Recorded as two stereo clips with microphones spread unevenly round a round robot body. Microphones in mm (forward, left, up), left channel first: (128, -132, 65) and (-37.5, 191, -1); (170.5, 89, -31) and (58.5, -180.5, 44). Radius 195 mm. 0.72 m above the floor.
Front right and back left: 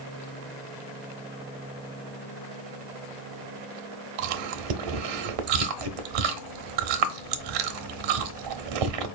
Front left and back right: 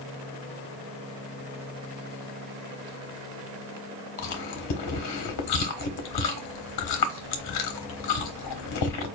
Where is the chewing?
110° left, 0.7 m.